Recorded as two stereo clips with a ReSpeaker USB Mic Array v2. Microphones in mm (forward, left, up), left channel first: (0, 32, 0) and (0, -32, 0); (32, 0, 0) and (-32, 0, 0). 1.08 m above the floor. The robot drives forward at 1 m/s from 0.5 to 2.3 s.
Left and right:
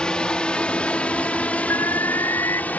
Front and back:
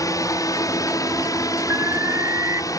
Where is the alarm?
130° left; by 2.6 s 135° left.